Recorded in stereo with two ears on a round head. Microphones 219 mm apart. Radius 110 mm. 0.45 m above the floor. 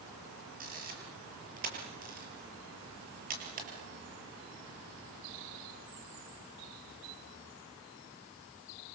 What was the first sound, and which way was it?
A camera shutter, 35° right (ahead or behind).